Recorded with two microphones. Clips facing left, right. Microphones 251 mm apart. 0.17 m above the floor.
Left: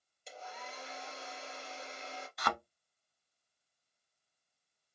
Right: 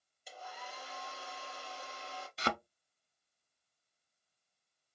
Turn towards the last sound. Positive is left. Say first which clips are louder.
# right 2 dB
turn(degrees=-30)  # may be behind; listen again after turning